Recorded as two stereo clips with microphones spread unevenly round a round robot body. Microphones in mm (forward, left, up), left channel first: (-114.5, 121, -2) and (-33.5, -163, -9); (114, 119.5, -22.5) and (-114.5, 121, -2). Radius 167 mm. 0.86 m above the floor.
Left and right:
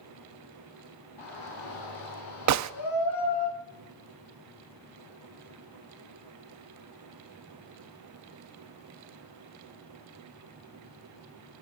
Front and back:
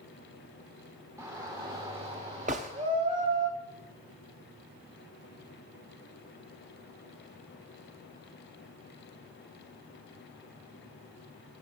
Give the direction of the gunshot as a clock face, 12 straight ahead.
4 o'clock.